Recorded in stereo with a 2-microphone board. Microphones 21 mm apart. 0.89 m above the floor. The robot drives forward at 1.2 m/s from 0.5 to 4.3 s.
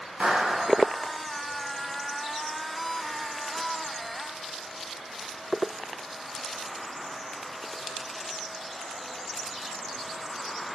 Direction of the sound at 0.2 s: 75° right (ahead or behind).